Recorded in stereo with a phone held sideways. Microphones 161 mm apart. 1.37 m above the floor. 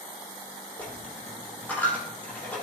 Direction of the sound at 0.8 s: 10° left (ahead or behind).